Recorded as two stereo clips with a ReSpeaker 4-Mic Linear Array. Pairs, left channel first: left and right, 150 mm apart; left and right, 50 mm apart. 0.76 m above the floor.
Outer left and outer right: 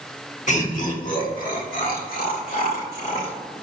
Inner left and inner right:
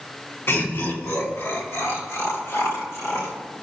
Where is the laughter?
50° left (ahead or behind), 1.3 m; by 3.3 s 70° left (ahead or behind), 3 m.